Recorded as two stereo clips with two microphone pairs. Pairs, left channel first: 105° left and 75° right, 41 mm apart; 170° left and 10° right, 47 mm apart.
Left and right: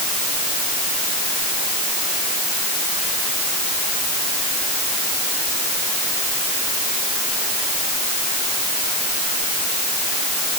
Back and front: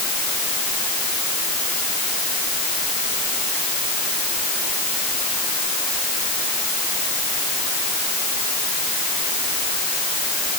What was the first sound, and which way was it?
Only background noise.